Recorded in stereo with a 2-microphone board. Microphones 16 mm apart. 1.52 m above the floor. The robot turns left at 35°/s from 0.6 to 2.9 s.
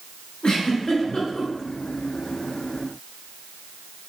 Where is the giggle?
65° left (ahead or behind), 1.2 m; by 1.5 s 70° left (ahead or behind), 1.2 m.